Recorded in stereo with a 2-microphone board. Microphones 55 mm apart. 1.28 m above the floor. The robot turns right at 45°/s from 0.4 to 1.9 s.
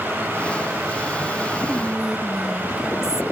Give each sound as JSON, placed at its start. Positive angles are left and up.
{"t": 1.7, "sound": "whispering", "side_deg": 0, "distance_m": 0.7}